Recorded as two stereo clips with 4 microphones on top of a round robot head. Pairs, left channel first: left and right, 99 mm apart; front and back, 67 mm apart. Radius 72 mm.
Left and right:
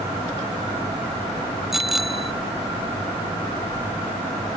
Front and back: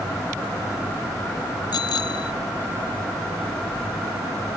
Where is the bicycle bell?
5° right.